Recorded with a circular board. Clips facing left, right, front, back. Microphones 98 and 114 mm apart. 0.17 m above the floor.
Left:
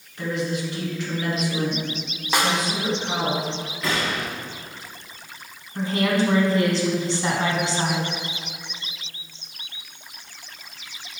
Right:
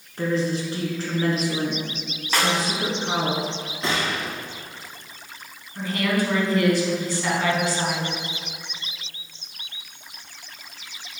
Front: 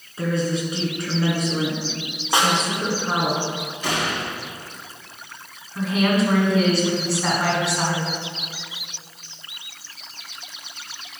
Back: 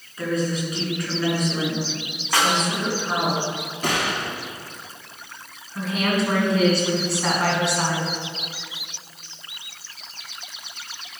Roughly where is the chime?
I don't hear a chime.